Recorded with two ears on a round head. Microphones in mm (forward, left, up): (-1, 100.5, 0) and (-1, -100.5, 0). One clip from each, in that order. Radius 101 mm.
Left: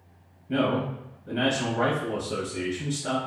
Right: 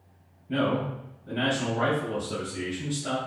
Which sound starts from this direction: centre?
A man speaking, at 0.5 s.